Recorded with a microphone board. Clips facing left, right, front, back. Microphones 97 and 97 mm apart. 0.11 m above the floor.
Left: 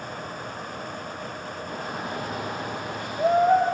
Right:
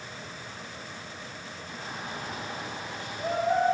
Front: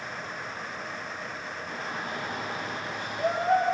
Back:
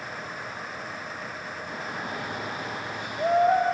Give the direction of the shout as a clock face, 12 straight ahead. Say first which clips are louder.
Left 6 dB, back 1 dB; 8 o'clock.